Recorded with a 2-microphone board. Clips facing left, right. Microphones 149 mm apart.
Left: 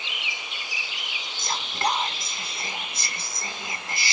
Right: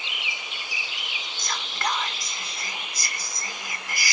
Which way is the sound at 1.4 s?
25° left (ahead or behind).